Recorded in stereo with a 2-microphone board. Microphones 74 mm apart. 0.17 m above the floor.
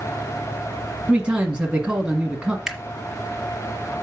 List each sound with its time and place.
1.1 s a man speaking: 15° right (ahead or behind), 1.4 m
2.7 s a camera shutter: 5° right (ahead or behind), 1.4 m